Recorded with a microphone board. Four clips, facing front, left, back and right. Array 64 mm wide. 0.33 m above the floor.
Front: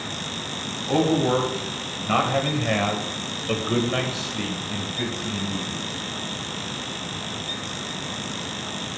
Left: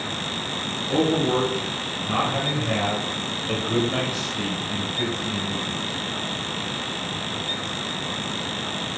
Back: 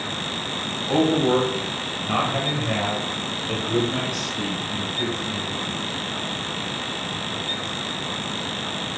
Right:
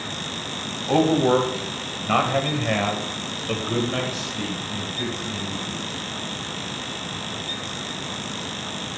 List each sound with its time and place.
0.9 s a man speaking: 90° right, 2.5 m; by 5.8 s 35° left, 2.5 m